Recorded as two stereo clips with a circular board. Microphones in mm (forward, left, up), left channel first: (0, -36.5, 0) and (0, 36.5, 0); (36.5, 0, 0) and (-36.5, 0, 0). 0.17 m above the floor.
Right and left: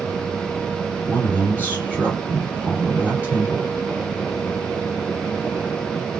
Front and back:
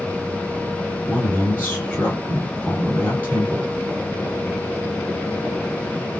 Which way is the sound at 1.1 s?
50° left.